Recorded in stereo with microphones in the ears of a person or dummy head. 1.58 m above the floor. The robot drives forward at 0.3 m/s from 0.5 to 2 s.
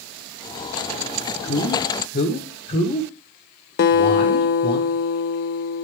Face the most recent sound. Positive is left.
turn(degrees=50)  # may be behind; listen again after turning